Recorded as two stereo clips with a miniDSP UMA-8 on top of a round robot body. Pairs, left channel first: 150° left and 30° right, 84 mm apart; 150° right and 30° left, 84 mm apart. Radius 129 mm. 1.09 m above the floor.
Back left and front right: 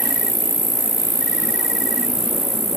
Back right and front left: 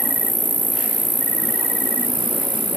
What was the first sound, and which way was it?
An insect, 110° right.